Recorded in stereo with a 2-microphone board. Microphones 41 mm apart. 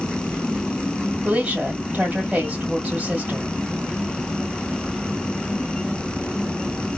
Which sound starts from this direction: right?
A woman speaking, at 1.2 s.